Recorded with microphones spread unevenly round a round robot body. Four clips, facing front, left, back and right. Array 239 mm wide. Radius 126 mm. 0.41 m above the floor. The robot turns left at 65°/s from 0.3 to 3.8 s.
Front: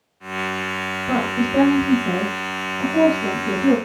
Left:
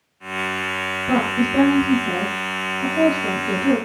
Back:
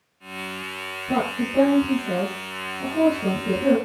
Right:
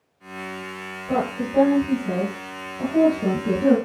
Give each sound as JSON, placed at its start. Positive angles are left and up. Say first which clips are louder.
{"t": 1.1, "sound": "a woman speaking", "louder": "left 4 dB, front 3 dB", "azimuth_deg": 60, "distance_m": 5.0}